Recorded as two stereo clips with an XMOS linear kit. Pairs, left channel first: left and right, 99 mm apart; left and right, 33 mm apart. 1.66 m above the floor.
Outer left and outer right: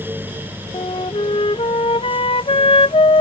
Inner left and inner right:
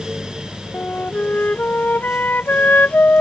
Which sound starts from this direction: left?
A flute, at 0.7 s.